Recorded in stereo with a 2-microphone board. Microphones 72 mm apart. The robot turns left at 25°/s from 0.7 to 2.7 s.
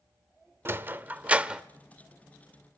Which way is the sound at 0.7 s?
30° right (ahead or behind).